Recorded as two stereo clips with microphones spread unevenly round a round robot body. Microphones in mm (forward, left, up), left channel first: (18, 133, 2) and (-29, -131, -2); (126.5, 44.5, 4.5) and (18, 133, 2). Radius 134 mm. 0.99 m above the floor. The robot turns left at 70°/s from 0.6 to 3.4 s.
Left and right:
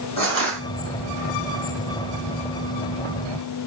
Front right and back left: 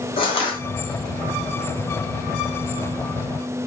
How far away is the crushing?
About 1.4 m.